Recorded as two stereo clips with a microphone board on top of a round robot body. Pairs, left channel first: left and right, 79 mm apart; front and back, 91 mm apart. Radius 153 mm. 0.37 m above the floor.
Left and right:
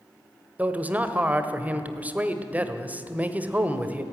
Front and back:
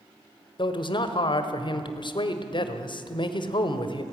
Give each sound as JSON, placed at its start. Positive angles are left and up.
{"t": 0.6, "sound": "a man speaking", "azimuth_deg": -20, "distance_m": 1.8}